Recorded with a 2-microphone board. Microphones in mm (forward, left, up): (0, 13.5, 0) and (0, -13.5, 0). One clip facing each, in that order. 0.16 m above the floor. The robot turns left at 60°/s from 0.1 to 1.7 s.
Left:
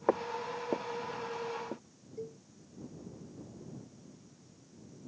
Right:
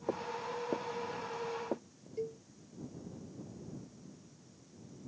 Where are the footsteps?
75° left (ahead or behind); by 2.1 s 65° right (ahead or behind).